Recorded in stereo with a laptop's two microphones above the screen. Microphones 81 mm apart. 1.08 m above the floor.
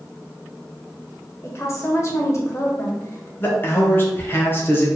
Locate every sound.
1.4 s a woman speaking: 40° left (ahead or behind), 0.8 m
3.4 s a man speaking: 30° left (ahead or behind), 0.8 m